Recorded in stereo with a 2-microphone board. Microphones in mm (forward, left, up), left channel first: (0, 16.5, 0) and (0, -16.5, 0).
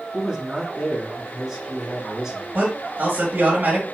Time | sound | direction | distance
0.1 | a man speaking | 5° right (ahead or behind) | 3.5 m
2.5 | a man speaking | 55° right (ahead or behind) | 2.5 m